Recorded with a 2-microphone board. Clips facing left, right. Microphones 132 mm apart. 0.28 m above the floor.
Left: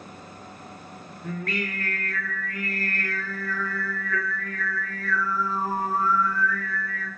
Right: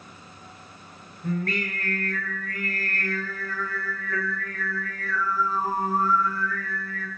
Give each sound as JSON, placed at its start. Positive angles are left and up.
{"t": 1.2, "sound": "singing", "side_deg": -35, "distance_m": 4.0}